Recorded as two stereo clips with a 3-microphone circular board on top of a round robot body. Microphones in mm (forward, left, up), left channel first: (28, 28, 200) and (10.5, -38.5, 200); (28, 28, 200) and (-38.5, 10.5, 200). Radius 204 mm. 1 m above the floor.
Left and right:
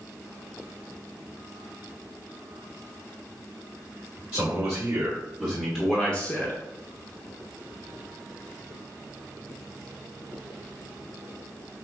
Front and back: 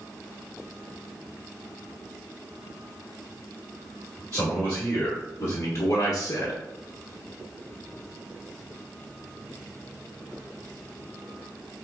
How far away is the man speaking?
About 1.8 m.